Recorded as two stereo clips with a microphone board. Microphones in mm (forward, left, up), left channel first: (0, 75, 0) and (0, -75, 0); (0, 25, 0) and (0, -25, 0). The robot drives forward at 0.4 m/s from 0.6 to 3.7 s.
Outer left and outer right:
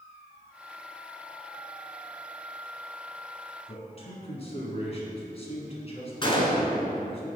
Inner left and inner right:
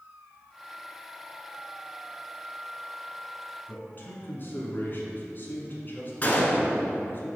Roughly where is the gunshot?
Left.